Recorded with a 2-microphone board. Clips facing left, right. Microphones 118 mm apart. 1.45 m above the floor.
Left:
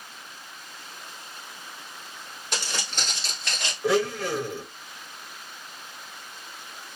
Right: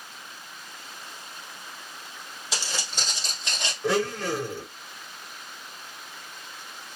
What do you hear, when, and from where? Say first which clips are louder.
2.5 s footsteps: left 1 dB; 5° right (ahead or behind), 1.9 m; by 3.7 s 20° right (ahead or behind), 1.5 m
3.8 s a blender: left 2 dB; centre (ahead or behind), 1.3 m